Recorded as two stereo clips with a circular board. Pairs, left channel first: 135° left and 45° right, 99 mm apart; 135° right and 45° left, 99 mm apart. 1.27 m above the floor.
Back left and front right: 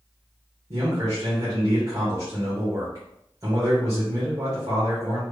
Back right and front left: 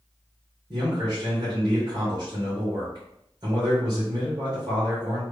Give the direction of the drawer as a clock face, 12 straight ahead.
I don't hear a drawer.